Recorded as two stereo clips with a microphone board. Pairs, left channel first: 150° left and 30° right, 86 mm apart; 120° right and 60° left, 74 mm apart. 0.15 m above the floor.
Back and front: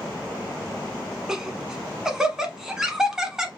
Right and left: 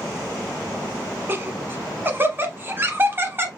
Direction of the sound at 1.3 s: 45° left.